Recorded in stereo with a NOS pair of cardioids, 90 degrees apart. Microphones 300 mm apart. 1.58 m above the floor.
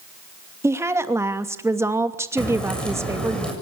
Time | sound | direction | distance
0.6 | a woman speaking | 10° right | 2.5 m
2.4 | a crack | 5° left | 7 m